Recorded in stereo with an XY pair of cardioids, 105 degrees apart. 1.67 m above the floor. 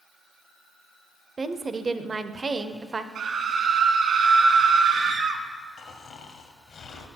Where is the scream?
65° right, 1.3 m.